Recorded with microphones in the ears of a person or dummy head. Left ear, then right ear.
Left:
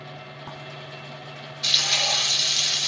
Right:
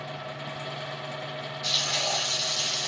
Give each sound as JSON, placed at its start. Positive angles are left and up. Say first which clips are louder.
{"t": 1.6, "sound": "frying", "louder": "left 6 dB", "side_deg": 65, "distance_m": 1.2}